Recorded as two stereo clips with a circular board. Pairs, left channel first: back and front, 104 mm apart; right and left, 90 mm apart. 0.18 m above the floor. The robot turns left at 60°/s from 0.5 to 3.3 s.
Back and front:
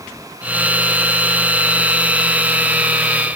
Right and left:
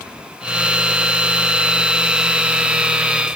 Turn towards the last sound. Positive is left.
No sound to turn to.